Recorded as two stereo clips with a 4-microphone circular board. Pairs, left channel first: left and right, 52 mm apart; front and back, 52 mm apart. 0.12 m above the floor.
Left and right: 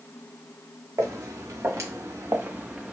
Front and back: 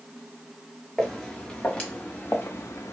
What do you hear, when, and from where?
1.0 s footsteps: 85° right, 1.3 m; by 2.9 s 15° right, 0.8 m